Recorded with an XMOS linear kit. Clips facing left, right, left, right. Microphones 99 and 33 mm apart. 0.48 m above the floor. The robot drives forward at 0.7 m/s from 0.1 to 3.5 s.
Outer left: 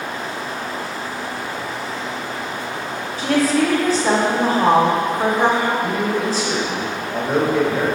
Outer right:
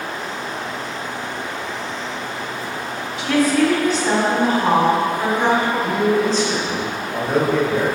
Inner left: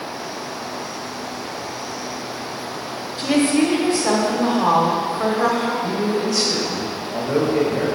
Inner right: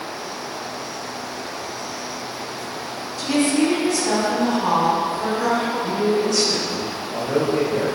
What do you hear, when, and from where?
3.2 s a woman speaking: 35° left (ahead or behind), 1.5 m
5.8 s a man speaking: 10° left (ahead or behind), 2 m